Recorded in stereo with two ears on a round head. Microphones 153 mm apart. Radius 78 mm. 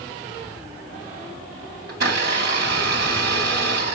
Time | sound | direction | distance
1.9 | a blender | 65° right (ahead or behind) | 3 m